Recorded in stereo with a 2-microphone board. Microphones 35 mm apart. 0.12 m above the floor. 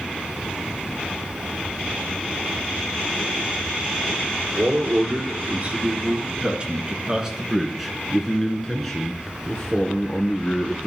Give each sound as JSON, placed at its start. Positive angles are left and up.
{"t": 4.6, "sound": "a man speaking", "side_deg": -45, "distance_m": 2.5}